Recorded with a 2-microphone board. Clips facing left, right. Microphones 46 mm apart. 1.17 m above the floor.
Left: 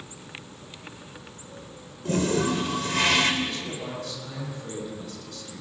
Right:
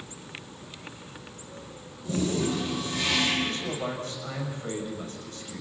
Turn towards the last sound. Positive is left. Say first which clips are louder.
# right 2 dB
turn(degrees=-35)  # may be behind; listen again after turning